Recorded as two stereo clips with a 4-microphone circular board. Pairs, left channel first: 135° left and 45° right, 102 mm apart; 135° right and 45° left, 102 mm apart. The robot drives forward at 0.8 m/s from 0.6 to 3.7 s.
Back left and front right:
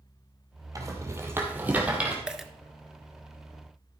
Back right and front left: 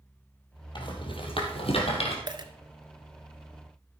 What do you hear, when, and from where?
0.8 s a rattle: 100° right, 2 m; by 2.2 s 125° right, 2.5 m
2.3 s a dropped coin: 35° left, 0.9 m; by 2.5 s 45° left, 0.8 m